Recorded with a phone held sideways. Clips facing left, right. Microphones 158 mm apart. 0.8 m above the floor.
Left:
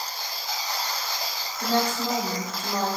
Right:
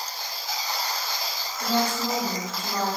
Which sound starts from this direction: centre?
A woman speaking, at 1.6 s.